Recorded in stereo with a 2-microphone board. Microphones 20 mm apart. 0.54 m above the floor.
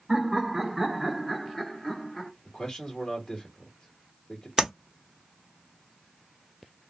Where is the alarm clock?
No alarm clock in this recording.